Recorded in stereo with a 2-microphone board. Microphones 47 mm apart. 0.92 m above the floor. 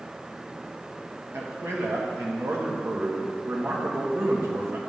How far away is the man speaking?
About 1.2 m.